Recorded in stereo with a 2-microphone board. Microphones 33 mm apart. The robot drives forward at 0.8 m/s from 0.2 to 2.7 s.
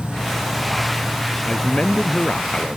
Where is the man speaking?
30° left (ahead or behind); by 2.8 s 35° left (ahead or behind).